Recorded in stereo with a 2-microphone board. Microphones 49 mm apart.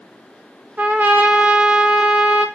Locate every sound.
0.8 s a trumpet: 35° right (ahead or behind), 0.8 m